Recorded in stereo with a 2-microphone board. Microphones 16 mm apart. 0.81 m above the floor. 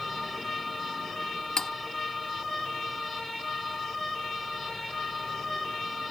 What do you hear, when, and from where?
1.6 s cutlery clinking: 40° left (ahead or behind)